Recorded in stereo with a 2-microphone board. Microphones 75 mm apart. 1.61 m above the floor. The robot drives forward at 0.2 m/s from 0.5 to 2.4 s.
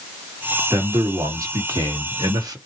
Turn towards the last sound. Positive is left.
turn(degrees=-55)  # may be behind; listen again after turning